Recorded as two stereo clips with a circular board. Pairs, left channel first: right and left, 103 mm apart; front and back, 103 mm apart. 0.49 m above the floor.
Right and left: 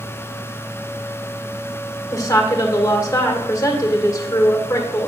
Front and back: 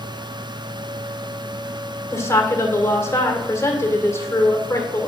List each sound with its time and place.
2.1 s a woman speaking: 50° right, 1.8 m